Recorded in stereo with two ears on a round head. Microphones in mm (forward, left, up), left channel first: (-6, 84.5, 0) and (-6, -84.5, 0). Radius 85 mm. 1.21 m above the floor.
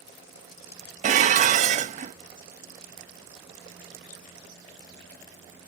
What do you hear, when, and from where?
1.0 s dishes clattering: 40° right (ahead or behind), 0.6 m